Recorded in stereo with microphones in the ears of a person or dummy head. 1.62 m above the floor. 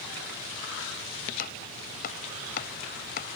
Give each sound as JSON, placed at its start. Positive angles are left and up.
{"t": 1.4, "sound": "chopping", "side_deg": 50}